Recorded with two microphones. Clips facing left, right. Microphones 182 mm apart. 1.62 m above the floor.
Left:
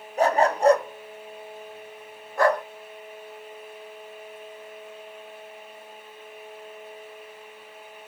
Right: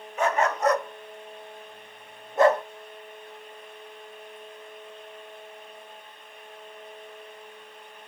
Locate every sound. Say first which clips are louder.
0.2 s a dog barking: left 4 dB; 35° left (ahead or behind), 1.4 m; by 2.6 s 25° right (ahead or behind), 1.3 m